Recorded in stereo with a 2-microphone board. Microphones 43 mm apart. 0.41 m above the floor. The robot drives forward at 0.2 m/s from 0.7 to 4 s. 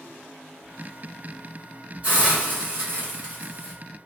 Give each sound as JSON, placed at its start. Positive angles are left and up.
{"t": 2.0, "sound": "a hiss", "side_deg": -30, "distance_m": 1.6}